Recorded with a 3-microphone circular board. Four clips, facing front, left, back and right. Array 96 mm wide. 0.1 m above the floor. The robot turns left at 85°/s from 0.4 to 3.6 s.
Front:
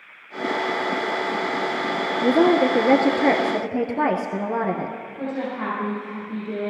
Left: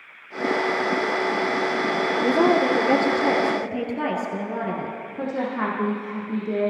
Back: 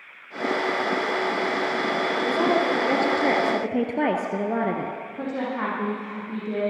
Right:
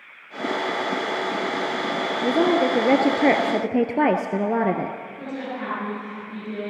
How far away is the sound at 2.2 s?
About 1.6 m.